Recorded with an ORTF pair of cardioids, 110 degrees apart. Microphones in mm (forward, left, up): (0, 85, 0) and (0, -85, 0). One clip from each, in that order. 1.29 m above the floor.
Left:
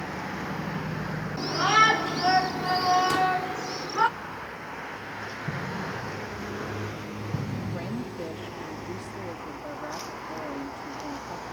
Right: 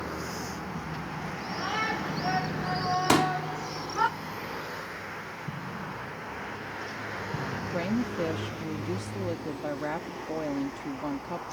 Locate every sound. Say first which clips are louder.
1.4 s a shout: left 11 dB; 60° left; by 4.1 s 15° left
3.1 s a pop: even; 55° right
5.5 s an explosion: left 5 dB; 20° left
7.7 s a woman speaking: right 4 dB; 40° right